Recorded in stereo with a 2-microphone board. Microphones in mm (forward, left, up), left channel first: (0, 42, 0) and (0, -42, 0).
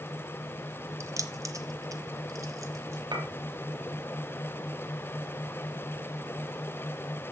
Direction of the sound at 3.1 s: 60° right (ahead or behind).